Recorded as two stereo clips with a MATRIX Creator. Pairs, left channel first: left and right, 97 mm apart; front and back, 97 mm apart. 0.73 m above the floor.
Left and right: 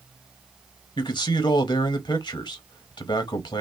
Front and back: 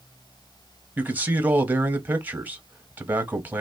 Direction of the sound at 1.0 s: 110° left.